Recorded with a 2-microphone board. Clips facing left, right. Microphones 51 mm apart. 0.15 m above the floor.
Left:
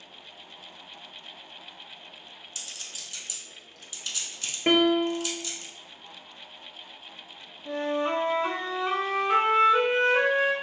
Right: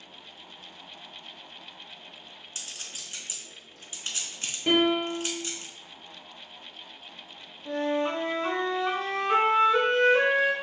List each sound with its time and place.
2.5 s a clink: 35° right (ahead or behind), 0.9 m
4.7 s a piano: 55° left (ahead or behind), 0.7 m
7.7 s a flute: 5° left (ahead or behind), 0.8 m